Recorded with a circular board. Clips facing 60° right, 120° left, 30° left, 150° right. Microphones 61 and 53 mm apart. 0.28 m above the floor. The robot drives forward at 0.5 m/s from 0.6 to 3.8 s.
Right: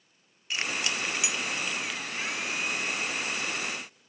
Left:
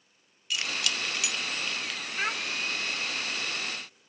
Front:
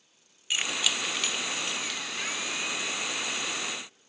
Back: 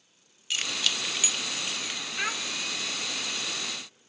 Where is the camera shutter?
No camera shutter in this recording.